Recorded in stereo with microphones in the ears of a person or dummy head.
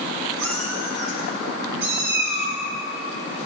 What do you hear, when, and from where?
0.4 s a cat meowing: 80° right, 4 m; by 2.6 s 50° right (ahead or behind), 5.5 m